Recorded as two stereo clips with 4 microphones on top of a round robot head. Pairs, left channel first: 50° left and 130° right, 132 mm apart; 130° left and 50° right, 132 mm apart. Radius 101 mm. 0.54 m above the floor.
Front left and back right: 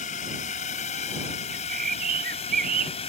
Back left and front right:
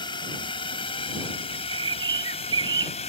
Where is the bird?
110° right.